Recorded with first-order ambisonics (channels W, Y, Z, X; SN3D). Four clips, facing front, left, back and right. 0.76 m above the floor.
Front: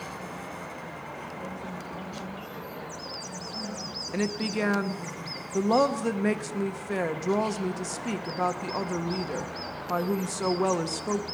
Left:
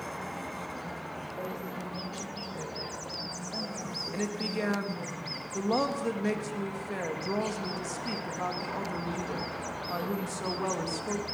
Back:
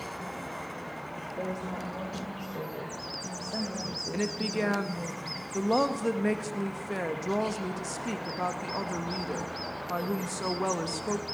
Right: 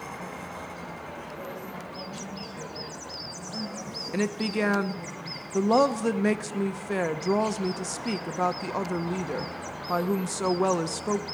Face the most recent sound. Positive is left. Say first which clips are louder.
# right 7 dB, front 3 dB
turn(degrees=-70)